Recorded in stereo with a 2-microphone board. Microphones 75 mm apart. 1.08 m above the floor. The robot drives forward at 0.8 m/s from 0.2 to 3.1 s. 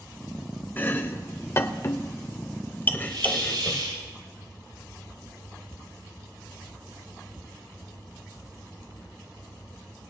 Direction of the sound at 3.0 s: 80° right.